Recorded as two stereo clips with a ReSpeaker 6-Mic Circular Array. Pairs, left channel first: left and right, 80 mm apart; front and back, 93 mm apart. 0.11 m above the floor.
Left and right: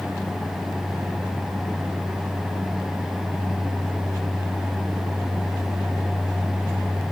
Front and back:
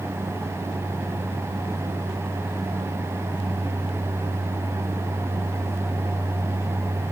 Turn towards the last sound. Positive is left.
No sound to turn to.